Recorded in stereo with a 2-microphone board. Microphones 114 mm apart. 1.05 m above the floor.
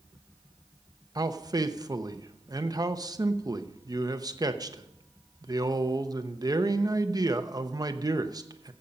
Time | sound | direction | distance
1.1 | a man speaking | 35° right (ahead or behind) | 0.9 m